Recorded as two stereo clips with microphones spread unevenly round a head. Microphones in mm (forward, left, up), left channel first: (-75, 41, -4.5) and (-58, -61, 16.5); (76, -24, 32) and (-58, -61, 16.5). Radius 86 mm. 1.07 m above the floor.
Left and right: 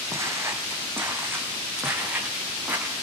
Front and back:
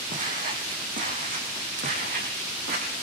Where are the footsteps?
140° right, 4 m; by 2.9 s 155° right, 7.5 m.